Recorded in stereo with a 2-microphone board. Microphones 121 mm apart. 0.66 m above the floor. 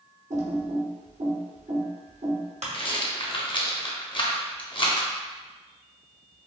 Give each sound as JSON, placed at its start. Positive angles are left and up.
{"t": 0.3, "sound": "typing on a keyboard", "side_deg": -85, "distance_m": 0.9}
{"t": 2.7, "sound": "a rattle", "side_deg": 45, "distance_m": 0.5}